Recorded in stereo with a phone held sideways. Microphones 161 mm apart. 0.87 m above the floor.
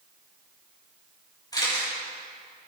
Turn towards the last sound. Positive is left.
turn(degrees=25)  # may be behind; listen again after turning